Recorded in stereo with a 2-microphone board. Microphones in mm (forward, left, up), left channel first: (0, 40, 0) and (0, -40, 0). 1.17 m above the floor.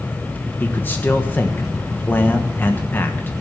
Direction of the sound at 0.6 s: 25° left (ahead or behind).